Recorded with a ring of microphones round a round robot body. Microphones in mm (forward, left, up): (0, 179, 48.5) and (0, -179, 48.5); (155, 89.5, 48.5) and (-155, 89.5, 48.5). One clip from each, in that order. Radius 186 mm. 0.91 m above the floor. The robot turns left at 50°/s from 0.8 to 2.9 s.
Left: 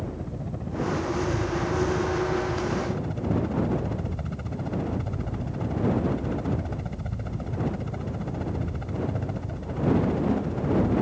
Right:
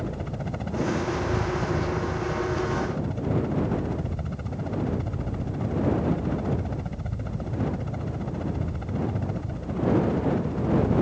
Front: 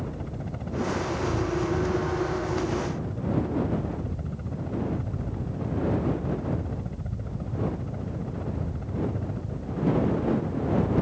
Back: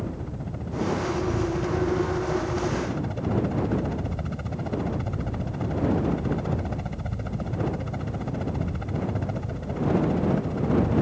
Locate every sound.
0.0 s a helicopter: 80° right; by 11.0 s 175° left